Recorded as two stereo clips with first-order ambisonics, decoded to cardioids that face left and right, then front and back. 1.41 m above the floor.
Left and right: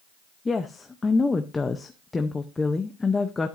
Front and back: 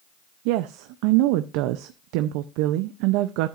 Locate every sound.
0.5 s a woman speaking: 170° left, 0.6 m